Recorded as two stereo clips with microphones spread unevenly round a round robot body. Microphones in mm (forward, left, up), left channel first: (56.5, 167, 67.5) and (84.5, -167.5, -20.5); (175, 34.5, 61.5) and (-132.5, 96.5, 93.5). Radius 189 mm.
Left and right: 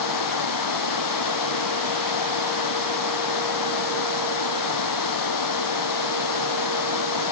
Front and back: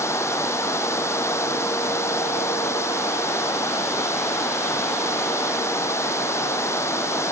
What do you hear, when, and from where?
0.0 s running water: 70° left